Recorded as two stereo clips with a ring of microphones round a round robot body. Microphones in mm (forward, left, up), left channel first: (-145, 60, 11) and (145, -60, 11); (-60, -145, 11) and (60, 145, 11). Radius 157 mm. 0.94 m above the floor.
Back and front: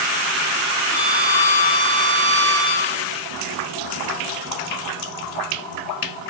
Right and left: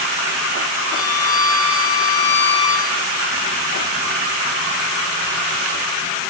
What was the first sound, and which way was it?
A violin, 165° right.